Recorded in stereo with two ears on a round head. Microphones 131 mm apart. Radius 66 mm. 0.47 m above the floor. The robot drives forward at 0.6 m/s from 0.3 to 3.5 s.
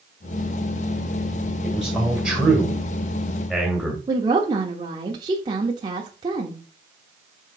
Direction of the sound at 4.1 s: 30° right (ahead or behind).